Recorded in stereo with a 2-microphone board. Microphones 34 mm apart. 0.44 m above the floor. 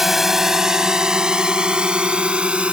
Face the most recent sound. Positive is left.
turn(degrees=-35)  # may be behind; listen again after turning